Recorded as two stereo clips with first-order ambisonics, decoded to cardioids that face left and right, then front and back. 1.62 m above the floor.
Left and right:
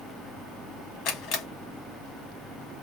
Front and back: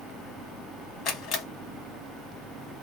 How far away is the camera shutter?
About 1.1 m.